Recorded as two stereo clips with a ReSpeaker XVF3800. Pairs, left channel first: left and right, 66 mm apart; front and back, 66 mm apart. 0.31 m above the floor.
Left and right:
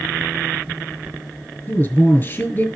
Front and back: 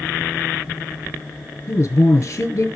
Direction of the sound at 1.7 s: 40° left.